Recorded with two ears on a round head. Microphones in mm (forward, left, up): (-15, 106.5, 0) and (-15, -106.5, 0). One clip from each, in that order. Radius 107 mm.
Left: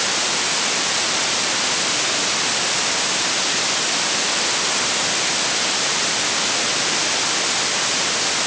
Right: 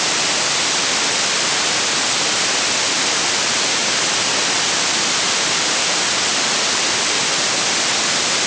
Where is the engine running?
No engine running in this recording.